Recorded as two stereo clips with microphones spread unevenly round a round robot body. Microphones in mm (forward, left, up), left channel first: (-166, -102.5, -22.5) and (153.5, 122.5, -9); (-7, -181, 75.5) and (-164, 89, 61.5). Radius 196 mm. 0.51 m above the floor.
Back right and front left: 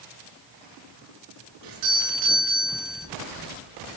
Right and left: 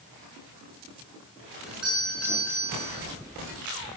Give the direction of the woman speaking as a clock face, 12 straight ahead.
No woman speaking in this recording.